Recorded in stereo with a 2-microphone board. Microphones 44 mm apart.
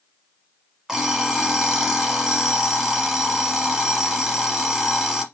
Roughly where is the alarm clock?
Centre.